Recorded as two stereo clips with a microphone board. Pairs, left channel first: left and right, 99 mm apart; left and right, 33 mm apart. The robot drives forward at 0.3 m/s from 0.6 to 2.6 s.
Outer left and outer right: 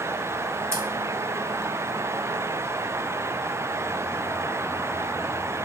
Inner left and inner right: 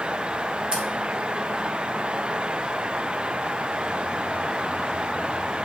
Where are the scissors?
25° right (ahead or behind), 0.6 m.